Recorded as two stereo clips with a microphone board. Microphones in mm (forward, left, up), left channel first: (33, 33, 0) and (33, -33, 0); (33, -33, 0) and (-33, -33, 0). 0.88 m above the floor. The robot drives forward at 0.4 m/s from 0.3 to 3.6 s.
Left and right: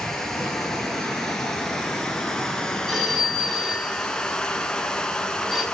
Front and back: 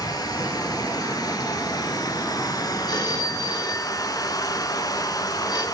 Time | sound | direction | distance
0.0 | running water | 5° left | 3.5 m
2.9 | a phone ringing | straight ahead | 4.5 m